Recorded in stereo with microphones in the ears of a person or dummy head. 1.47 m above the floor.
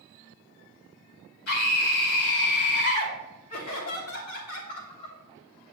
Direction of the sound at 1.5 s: 60° left (ahead or behind).